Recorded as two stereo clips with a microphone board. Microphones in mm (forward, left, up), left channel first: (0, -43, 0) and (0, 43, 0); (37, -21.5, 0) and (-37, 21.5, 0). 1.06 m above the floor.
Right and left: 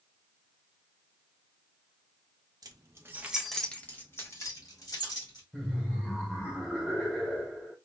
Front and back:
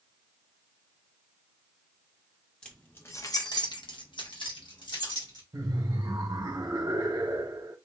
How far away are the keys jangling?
About 0.7 m.